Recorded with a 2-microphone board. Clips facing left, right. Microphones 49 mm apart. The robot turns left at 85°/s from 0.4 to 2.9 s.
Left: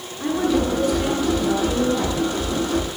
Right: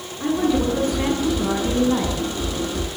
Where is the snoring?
I don't hear snoring.